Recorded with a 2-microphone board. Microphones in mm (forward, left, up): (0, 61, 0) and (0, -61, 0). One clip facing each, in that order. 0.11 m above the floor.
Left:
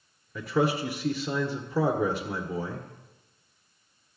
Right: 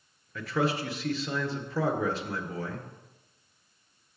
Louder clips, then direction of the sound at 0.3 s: Left 3 dB; 15° left (ahead or behind).